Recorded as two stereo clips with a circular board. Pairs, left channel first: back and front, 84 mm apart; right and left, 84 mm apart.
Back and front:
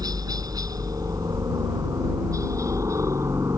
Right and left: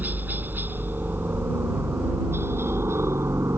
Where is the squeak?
No squeak in this recording.